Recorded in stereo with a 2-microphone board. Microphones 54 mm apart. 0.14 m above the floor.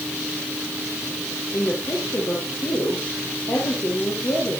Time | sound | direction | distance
1.5 | a woman speaking | 70° left (ahead or behind) | 4 m